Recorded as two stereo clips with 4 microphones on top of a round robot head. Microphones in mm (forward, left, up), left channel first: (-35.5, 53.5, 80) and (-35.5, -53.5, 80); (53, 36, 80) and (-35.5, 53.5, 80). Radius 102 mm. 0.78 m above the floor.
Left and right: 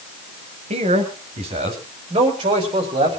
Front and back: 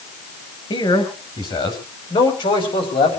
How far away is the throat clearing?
No throat clearing in this recording.